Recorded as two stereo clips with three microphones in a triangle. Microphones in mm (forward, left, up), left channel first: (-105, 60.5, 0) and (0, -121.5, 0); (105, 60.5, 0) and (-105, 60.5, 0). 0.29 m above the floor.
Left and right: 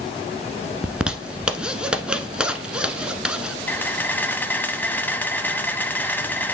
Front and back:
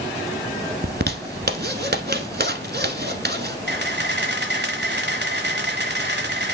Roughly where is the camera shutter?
Behind.